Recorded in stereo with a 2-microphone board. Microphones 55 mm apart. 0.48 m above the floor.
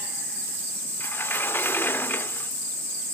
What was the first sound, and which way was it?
A sliding door, 40° left (ahead or behind).